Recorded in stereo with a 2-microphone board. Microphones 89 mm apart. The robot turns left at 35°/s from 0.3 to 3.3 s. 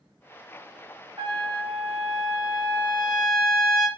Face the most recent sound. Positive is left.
turn(degrees=170)